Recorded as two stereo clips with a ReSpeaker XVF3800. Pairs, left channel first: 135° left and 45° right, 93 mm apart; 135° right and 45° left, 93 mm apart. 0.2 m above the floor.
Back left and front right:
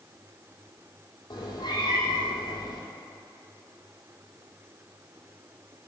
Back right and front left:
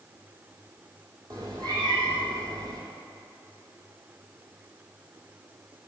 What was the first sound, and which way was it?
A cat meowing, 90° left.